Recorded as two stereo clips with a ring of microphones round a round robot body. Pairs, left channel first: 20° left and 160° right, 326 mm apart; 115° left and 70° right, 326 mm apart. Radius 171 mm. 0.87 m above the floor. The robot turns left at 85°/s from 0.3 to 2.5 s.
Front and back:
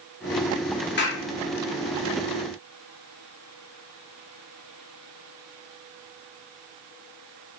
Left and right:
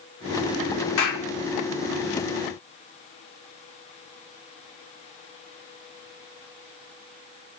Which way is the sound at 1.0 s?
80° left.